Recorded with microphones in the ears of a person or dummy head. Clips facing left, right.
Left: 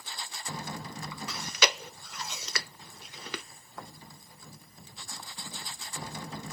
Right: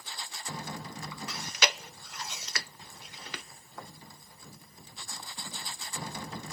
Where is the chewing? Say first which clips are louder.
Left 3 dB; 75° left (ahead or behind), 0.5 m.